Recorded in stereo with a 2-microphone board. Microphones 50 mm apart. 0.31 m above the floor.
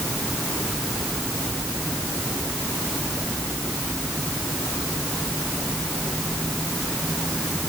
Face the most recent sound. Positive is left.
No sound to turn to.